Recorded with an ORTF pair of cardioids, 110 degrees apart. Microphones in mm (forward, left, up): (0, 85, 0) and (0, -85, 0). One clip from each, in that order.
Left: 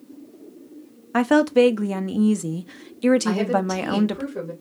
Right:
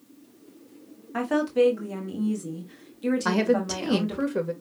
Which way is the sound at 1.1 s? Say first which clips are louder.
Left 6 dB; 50° left.